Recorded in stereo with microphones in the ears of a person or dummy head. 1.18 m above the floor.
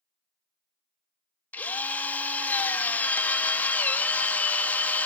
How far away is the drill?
About 1.1 m.